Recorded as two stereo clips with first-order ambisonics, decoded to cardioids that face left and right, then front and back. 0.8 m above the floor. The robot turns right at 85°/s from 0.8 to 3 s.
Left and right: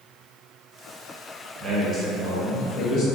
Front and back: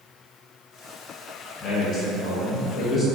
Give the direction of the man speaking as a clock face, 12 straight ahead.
2 o'clock.